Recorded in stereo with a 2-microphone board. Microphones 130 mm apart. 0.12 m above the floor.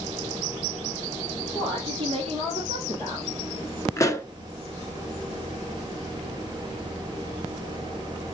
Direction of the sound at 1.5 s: 45° right (ahead or behind).